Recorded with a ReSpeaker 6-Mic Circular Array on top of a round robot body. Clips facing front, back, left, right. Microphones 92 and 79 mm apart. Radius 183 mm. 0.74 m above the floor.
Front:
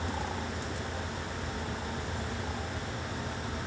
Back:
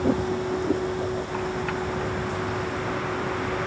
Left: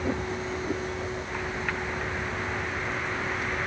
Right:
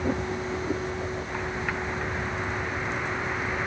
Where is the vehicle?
170° right.